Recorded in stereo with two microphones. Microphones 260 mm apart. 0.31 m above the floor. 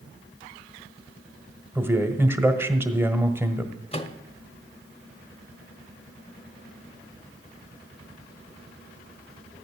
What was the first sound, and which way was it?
A man speaking, 10° right (ahead or behind).